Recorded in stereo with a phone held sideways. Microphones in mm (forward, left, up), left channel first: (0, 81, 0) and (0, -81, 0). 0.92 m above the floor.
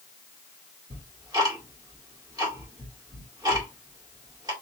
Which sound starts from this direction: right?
Ticking, at 0.9 s.